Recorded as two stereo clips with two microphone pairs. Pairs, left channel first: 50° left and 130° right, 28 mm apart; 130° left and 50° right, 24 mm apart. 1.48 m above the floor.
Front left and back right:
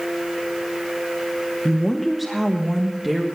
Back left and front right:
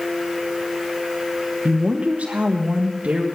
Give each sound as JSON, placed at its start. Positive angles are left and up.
{"t": 1.6, "sound": "a woman speaking", "azimuth_deg": -30, "distance_m": 1.0}